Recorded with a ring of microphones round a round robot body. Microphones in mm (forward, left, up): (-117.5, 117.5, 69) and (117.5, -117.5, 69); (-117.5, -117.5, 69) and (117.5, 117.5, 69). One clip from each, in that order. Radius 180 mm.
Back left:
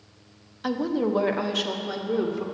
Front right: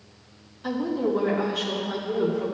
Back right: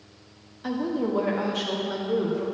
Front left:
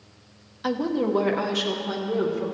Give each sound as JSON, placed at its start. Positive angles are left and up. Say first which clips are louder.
{"t": 0.6, "sound": "a woman speaking", "louder": "even, front left 3 dB", "azimuth_deg": 100, "distance_m": 1.4}